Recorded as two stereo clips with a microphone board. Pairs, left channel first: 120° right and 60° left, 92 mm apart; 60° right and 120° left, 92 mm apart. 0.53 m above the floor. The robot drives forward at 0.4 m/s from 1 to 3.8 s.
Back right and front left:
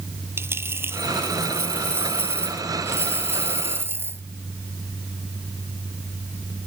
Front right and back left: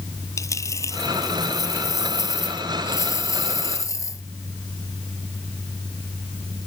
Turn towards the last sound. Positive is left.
turn(degrees=-5)